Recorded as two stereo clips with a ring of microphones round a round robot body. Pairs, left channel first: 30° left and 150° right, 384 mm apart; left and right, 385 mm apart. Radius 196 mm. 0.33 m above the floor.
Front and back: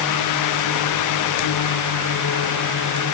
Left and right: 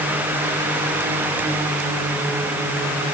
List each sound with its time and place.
Only background noise.